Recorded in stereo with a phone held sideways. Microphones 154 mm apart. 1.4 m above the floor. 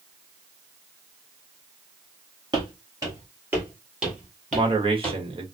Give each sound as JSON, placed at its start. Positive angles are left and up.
{"t": 2.5, "sound": "footsteps", "side_deg": -30, "distance_m": 1.6}
{"t": 4.5, "sound": "a man speaking", "side_deg": -35, "distance_m": 0.9}